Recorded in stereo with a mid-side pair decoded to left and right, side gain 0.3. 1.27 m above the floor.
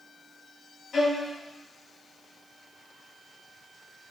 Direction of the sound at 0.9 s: 60° left.